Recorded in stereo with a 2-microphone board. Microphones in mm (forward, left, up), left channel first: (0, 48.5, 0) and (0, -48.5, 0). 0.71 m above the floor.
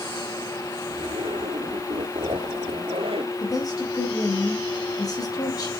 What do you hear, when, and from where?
0.9 s a zipper: 80° right, 3.5 m
3.4 s a woman speaking: 40° left (ahead or behind), 5 m